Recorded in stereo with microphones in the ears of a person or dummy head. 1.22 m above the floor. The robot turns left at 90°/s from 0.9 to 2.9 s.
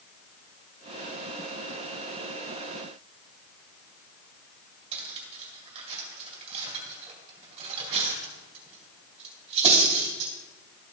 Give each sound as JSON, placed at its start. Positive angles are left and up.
{"t": 4.9, "sound": "cutlery clinking", "side_deg": -40, "distance_m": 3.0}